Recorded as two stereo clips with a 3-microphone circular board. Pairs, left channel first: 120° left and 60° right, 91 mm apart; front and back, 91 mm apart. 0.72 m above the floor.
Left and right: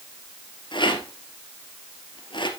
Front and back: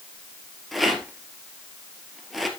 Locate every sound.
0.7 s a rattle: 90° left, 2.5 m